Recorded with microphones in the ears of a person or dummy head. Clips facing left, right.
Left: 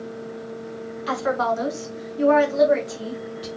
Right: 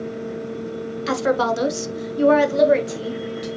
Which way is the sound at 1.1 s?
30° right (ahead or behind).